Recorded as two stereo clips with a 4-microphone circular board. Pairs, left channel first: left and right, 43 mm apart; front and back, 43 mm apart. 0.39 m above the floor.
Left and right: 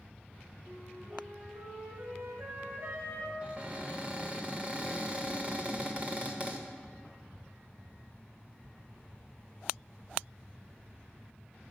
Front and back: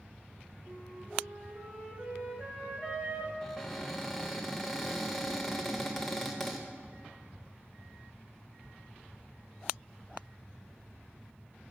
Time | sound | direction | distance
0.7 | a flute | 115° right | 1.9 m
3.4 | a cupboard door | 80° right | 0.9 m